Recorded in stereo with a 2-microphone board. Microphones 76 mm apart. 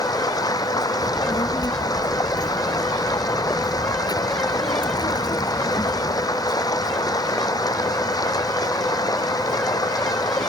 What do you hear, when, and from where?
0.0 s running water: 55° left (ahead or behind)
1.0 s a child speaking: 60° left (ahead or behind)